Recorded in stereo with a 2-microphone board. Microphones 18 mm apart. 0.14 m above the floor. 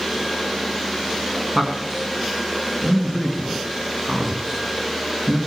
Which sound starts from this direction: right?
A man speaking, at 1.6 s.